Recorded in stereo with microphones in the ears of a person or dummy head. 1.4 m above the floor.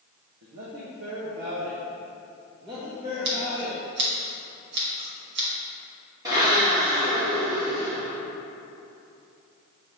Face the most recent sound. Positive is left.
turn(degrees=-15)  # may be behind; listen again after turning